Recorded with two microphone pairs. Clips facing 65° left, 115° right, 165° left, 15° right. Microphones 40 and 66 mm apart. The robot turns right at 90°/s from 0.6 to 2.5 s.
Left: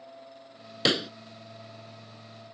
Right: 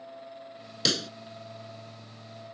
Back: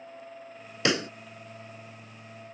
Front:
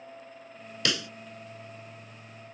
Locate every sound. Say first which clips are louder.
0.8 s a pop: left 4 dB, back 5 dB; 115° left; by 1.1 s 135° left